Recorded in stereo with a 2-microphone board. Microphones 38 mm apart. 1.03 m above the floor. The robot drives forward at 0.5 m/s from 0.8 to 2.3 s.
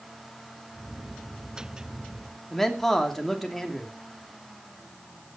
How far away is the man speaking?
About 2.5 m.